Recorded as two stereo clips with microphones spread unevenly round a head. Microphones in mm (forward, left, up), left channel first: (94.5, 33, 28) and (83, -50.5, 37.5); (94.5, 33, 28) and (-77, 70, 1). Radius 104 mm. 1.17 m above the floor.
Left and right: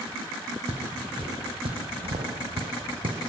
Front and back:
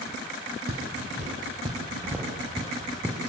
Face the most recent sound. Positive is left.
turn(degrees=-85)